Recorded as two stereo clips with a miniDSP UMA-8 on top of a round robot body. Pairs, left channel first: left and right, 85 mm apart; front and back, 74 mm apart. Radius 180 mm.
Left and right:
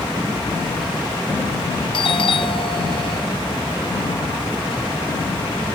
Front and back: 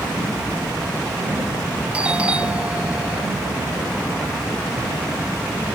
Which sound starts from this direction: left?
A doorbell, at 1.9 s.